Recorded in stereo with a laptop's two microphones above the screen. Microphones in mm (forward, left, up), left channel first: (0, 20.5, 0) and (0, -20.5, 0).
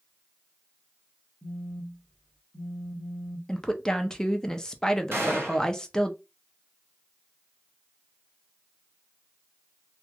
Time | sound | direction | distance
1.4 | a phone buzzing | 10° left (ahead or behind) | 1.2 m
3.5 | a woman speaking | 15° left (ahead or behind) | 0.6 m
5.1 | a gunshot | 65° right (ahead or behind) | 1.5 m